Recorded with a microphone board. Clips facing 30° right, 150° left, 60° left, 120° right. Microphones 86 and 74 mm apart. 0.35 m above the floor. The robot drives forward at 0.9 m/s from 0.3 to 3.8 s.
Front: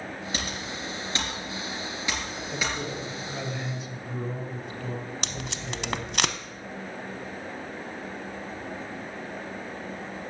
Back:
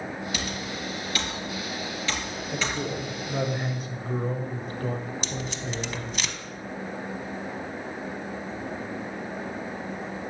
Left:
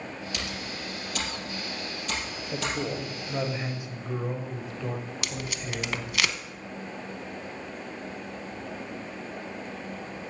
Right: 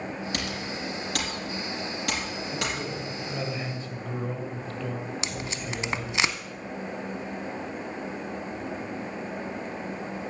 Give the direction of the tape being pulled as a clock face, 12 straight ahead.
2 o'clock.